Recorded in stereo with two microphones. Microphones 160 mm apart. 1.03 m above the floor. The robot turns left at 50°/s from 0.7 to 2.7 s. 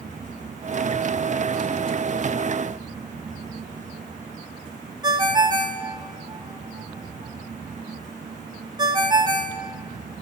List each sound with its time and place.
5.0 s a ringtone: 25° right (ahead or behind), 0.9 m